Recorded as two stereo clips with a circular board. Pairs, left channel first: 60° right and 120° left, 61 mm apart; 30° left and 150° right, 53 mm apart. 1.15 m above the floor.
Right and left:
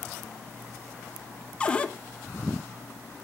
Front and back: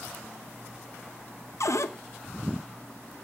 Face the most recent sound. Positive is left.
turn(degrees=10)